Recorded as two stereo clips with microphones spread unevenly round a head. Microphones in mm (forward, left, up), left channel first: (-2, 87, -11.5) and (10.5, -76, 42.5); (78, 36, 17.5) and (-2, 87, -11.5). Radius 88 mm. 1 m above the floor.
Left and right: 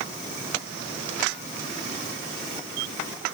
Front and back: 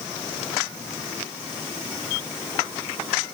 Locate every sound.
Only background noise.